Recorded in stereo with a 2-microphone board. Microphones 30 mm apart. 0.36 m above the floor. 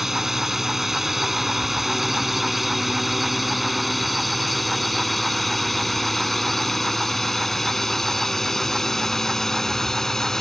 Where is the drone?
10° right (ahead or behind); by 10.4 s 15° left (ahead or behind).